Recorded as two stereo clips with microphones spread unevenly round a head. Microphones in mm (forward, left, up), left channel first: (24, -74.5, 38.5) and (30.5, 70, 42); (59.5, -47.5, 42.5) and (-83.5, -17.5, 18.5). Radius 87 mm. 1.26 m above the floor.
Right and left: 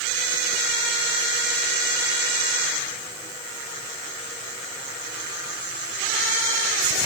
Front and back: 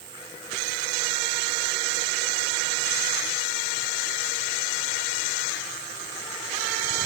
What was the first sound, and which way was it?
Only background noise.